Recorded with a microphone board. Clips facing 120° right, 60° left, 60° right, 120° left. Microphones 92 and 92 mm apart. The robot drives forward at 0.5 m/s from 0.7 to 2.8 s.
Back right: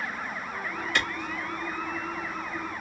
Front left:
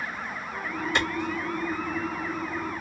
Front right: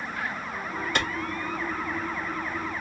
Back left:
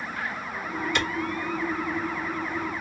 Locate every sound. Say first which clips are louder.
0.9 s a clap: front left 2 dB, even; 10° right, 1.1 m